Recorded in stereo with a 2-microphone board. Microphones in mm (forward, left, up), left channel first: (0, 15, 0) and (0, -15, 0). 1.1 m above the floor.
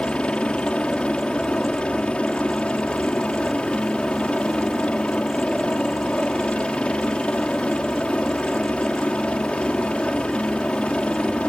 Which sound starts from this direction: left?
A helicopter, at 0.0 s.